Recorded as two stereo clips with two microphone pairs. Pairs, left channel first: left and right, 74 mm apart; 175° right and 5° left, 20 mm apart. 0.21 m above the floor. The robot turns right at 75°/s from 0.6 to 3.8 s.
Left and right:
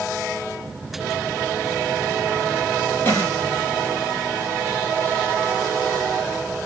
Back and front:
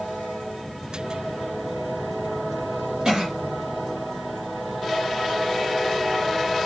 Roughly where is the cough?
Ahead left.